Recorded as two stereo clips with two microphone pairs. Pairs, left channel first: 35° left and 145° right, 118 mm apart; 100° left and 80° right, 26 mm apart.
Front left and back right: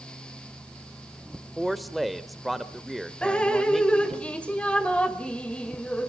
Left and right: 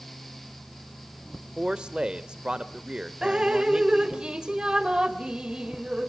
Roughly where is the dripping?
Ahead right.